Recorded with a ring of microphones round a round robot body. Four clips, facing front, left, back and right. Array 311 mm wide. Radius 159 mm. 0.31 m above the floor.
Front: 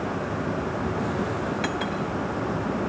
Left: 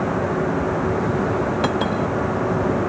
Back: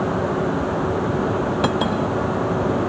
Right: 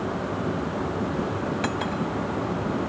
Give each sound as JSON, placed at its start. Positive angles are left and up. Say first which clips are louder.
{"t": 1.6, "sound": "cutlery clinking", "louder": "left 6 dB, back 7 dB", "azimuth_deg": 150}